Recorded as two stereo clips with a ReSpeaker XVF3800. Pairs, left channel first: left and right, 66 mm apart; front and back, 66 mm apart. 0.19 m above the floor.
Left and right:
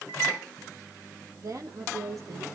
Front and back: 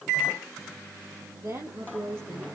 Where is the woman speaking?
130° right, 5 m; by 2.5 s 125° right, 4 m.